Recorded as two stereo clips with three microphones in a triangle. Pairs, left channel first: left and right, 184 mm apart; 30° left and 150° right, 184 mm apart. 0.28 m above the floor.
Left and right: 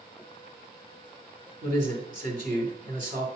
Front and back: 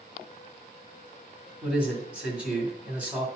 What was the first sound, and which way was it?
A man speaking, 70° right.